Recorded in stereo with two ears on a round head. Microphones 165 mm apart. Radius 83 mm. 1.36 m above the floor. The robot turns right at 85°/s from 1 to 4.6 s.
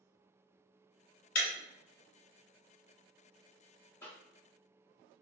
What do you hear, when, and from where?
1.4 s breaking glass: 50° left (ahead or behind), 2.0 m; by 1.5 s 55° left (ahead or behind), 2.0 m
4.0 s a cough: 15° left (ahead or behind), 0.7 m; by 4.1 s 5° left (ahead or behind), 0.7 m